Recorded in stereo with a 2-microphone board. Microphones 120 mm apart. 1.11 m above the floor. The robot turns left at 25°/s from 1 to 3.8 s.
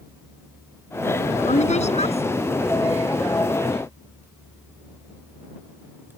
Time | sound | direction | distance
1.5 | a woman speaking | 75° left (ahead or behind) | ?